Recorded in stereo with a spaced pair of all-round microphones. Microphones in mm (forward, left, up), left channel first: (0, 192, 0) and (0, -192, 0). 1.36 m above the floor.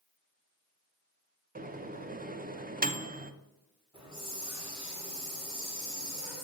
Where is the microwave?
25° right (ahead or behind), 0.6 m.